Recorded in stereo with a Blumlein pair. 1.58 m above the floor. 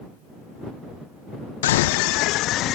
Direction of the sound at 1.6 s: 60° left.